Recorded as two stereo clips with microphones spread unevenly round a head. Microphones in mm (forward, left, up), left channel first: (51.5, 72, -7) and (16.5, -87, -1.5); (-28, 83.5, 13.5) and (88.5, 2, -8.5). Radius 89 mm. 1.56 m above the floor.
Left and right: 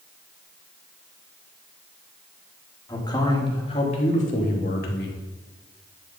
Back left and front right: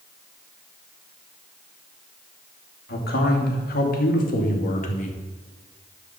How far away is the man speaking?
About 2.5 m.